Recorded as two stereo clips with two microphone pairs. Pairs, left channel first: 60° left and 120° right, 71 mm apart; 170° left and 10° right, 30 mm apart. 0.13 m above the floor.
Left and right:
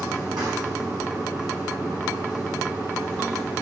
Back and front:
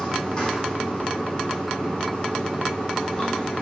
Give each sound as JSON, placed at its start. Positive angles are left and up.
{"t": 0.0, "sound": "running water", "azimuth_deg": -125, "distance_m": 3.0}